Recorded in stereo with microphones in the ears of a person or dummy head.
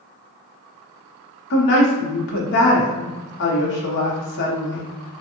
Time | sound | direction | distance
1.5 | a woman speaking | 60° left (ahead or behind) | 0.8 m